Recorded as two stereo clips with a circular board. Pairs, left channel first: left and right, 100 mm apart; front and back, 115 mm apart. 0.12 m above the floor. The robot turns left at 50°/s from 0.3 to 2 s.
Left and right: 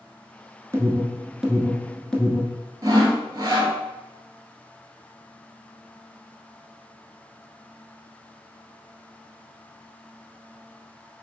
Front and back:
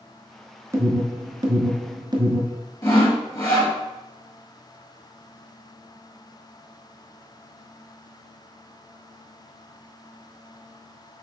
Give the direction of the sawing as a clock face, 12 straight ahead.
2 o'clock.